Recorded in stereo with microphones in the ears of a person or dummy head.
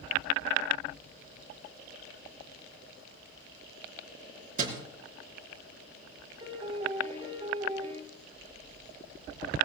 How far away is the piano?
About 4 m.